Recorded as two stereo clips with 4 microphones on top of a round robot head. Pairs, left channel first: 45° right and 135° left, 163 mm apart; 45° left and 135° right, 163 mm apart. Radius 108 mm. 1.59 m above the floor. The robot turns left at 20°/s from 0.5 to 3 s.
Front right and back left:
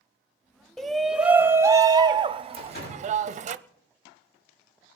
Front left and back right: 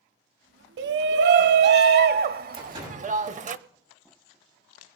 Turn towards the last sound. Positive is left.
turn(degrees=-85)